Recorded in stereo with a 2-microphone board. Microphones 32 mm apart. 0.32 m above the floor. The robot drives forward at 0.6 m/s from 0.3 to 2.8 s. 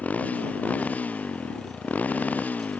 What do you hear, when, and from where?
0.0 s a motorcycle: 50° left (ahead or behind); by 2.8 s 55° left (ahead or behind)